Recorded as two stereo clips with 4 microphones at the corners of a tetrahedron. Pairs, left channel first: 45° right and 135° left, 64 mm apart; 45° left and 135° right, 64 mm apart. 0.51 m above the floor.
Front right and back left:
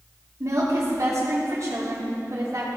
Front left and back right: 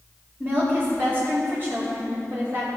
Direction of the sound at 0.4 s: 175° left.